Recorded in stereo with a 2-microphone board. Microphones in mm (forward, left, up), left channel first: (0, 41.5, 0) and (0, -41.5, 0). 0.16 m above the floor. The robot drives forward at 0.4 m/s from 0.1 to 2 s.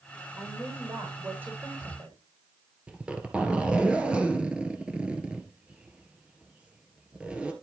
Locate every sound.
0.4 s a woman speaking: 25° right (ahead or behind), 6.5 m; by 2.2 s 30° right (ahead or behind), 6 m
2.9 s a zipper: 15° right (ahead or behind), 2.5 m